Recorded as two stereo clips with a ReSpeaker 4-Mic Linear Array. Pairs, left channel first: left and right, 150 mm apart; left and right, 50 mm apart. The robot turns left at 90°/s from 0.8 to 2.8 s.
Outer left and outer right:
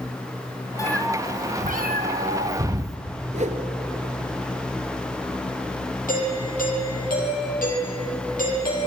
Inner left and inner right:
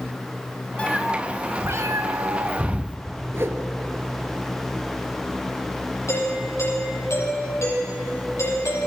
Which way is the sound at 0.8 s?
20° left.